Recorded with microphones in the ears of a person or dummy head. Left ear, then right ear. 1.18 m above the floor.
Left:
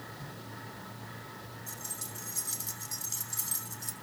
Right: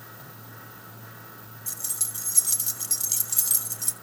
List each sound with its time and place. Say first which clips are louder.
0.0 s a fan: even; 70° right (ahead or behind), 7 m
1.7 s keys jangling: right 9 dB; 65° right (ahead or behind), 1.1 m